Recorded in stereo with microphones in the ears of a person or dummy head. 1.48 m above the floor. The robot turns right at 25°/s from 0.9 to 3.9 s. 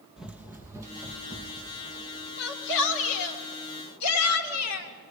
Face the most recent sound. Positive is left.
turn(degrees=80)